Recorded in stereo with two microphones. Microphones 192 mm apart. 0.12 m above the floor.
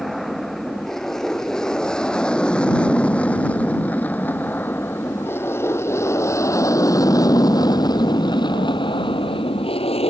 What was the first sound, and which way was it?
An aircraft, centre (ahead or behind).